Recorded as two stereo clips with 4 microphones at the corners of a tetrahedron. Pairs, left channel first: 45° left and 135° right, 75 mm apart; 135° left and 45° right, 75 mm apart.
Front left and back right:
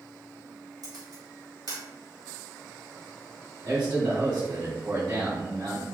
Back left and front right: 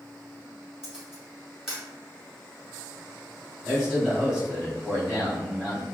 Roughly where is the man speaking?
Behind right.